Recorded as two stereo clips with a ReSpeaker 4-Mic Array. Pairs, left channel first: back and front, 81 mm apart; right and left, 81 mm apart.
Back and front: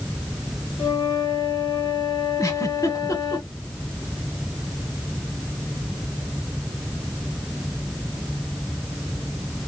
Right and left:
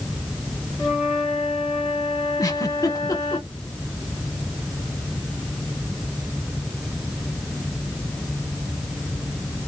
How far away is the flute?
About 2 m.